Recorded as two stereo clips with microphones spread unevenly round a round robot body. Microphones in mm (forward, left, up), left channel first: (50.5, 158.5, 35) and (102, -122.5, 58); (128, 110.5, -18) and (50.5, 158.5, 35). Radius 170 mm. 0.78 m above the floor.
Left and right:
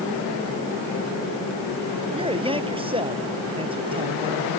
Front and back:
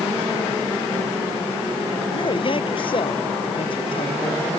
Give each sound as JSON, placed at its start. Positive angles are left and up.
{"t": 2.1, "sound": "a man speaking", "azimuth_deg": -10}